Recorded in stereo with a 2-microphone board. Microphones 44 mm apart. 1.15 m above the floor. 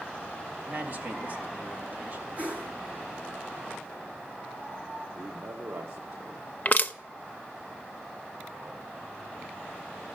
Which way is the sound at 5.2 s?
65° right (ahead or behind).